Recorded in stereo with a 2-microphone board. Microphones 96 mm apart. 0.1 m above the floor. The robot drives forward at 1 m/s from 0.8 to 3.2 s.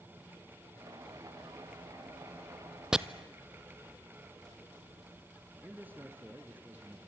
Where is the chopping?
5° right (ahead or behind), 0.6 m; by 3.0 s 10° right (ahead or behind), 0.6 m.